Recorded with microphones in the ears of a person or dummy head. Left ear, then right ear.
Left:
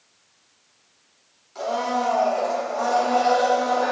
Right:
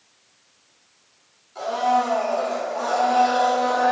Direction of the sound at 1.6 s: 20° left (ahead or behind).